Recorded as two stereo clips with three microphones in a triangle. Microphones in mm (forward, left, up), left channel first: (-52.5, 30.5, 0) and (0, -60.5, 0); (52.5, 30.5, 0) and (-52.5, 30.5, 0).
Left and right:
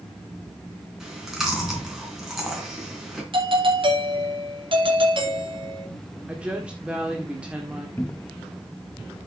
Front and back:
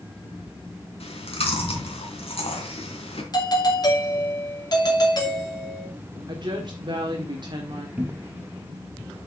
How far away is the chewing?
About 3 m.